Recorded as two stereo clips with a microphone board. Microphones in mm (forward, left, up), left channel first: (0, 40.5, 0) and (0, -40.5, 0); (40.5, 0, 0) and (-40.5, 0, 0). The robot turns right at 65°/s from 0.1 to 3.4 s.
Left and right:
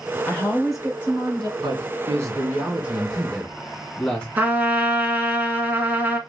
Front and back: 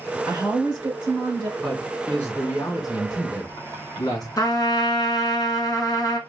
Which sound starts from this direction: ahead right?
A trumpet, at 4.4 s.